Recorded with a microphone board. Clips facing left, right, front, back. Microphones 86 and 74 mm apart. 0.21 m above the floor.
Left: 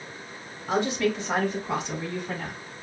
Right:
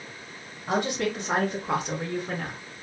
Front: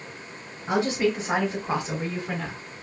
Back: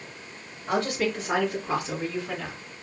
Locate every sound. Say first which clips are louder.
0.7 s a woman speaking: left 2 dB, front 3 dB; 70° right, 3.5 m; by 2.6 s 65° right, 2.5 m